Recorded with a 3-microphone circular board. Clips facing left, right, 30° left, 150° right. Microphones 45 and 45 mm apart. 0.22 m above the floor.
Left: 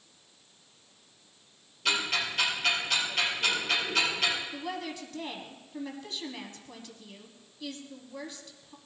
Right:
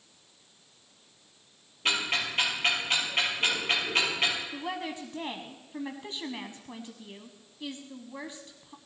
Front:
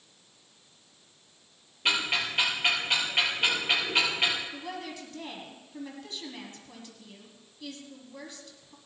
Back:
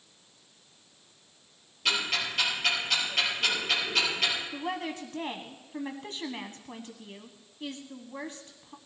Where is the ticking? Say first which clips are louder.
Right 1 dB, front 2 dB; 35° right, 5.5 m.